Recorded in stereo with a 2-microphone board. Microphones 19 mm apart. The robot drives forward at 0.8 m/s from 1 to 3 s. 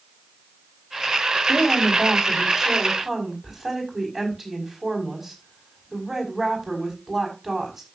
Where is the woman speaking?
20° right (ahead or behind), 4 m; by 7.9 s 15° right (ahead or behind), 5 m.